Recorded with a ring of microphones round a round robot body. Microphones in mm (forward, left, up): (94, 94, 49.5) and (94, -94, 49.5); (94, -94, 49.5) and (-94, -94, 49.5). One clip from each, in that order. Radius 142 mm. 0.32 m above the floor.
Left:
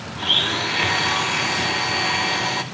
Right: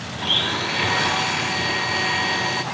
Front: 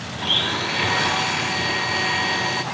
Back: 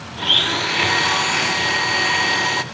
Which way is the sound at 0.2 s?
160° left.